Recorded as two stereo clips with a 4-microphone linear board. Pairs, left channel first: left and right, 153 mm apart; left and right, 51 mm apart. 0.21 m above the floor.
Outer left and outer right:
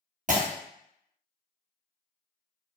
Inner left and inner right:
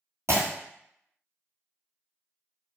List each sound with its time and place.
0.3 s breaking glass: 65° right (ahead or behind), 1.0 m